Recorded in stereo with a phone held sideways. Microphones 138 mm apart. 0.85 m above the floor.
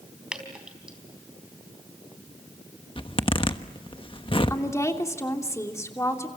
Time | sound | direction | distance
0.3 | dripping | 5° right (ahead or behind) | 4 m
3.0 | a zipper | 40° left (ahead or behind) | 1.2 m
4.5 | a woman speaking | 20° left (ahead or behind) | 3 m